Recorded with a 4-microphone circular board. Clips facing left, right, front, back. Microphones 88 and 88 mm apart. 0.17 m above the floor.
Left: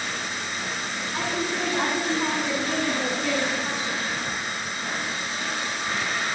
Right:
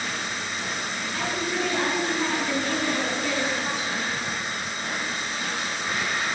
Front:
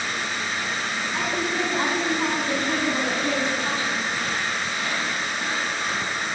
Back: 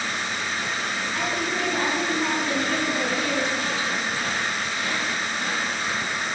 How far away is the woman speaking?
About 2 m.